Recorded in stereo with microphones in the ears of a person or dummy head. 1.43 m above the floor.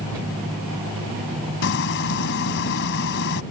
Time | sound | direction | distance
1.6 | frying | 65° left (ahead or behind) | ?